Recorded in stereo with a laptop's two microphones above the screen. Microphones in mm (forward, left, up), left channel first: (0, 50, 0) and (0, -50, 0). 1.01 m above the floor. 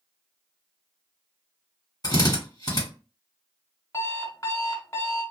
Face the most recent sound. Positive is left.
turn(degrees=30)  # may be behind; listen again after turning